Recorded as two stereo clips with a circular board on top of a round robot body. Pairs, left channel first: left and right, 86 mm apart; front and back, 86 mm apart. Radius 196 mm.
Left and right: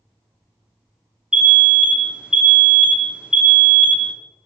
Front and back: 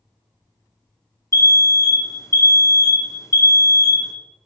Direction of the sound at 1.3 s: 15° right.